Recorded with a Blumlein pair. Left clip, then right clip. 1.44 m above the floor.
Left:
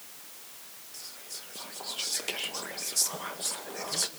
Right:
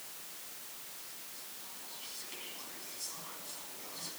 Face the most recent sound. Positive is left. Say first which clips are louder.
# left 6 dB
turn(degrees=45)